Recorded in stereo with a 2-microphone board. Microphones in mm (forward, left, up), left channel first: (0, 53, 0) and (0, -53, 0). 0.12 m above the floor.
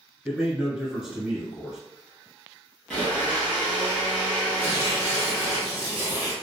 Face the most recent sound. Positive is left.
turn(degrees=-20)  # may be behind; listen again after turning